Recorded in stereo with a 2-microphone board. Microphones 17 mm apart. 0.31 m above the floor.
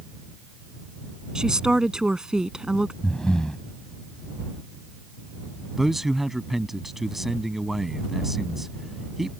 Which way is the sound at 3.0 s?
55° left (ahead or behind).